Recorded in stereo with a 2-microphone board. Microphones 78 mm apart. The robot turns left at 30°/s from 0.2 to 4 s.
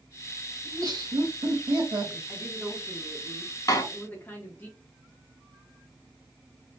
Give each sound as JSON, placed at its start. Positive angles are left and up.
{"t": 0.7, "sound": "laughter", "azimuth_deg": -55, "distance_m": 1.7}
{"t": 2.3, "sound": "a woman speaking", "azimuth_deg": -155, "distance_m": 1.0}
{"t": 3.7, "sound": "a door slam", "side_deg": 45, "distance_m": 0.8}